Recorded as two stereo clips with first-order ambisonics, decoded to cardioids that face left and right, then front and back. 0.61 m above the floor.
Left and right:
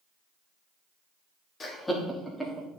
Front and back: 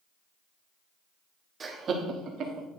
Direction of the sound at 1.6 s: 135° left.